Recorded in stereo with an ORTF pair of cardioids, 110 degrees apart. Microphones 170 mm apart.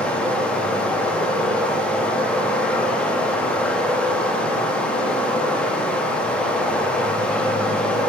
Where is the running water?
5° left, 0.7 m.